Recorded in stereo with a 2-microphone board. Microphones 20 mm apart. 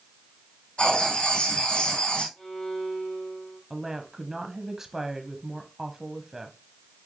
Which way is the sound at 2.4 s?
75° left (ahead or behind).